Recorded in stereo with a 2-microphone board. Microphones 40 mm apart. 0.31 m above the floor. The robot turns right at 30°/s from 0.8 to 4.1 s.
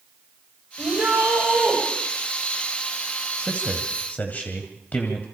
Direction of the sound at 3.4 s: 35° left (ahead or behind).